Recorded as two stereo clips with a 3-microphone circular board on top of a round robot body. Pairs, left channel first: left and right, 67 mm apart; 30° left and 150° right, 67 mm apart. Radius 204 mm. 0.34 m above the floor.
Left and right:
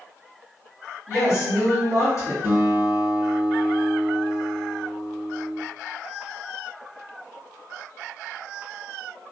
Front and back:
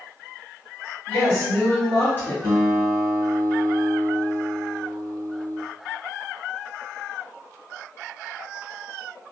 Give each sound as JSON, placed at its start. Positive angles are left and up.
{"t": 1.1, "sound": "a woman speaking", "azimuth_deg": 75, "distance_m": 1.8}
{"t": 2.4, "sound": "a guitar", "azimuth_deg": 45, "distance_m": 1.8}